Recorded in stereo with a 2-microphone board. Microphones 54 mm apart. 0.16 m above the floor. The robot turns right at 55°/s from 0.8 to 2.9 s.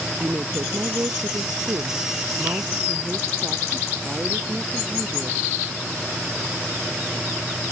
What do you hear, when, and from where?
0.2 s a woman speaking: 140° right; by 5.4 s 25° right